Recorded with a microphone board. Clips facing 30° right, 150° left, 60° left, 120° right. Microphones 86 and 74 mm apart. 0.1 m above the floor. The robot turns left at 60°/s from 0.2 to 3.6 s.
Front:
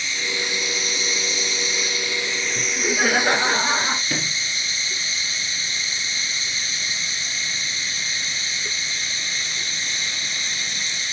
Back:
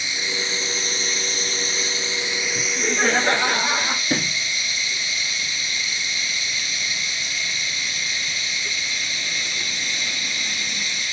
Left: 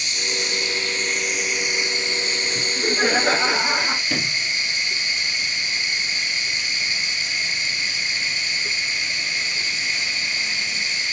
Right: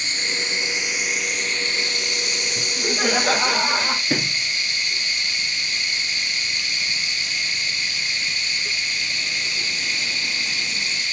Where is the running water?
145° right, 0.9 m; by 11.1 s 10° left, 0.9 m.